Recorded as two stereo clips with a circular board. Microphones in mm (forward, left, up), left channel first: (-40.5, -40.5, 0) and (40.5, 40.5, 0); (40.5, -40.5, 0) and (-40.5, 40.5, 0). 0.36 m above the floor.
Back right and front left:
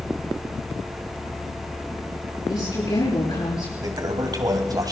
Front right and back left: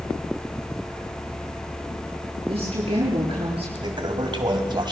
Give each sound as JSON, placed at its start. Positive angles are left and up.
{"t": 2.5, "sound": "a woman speaking", "azimuth_deg": 180, "distance_m": 6.5}
{"t": 3.8, "sound": "a toilet flushing", "azimuth_deg": 95, "distance_m": 2.5}